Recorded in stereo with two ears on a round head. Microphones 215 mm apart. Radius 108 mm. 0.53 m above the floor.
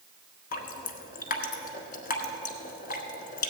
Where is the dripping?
35° left (ahead or behind), 1.1 m.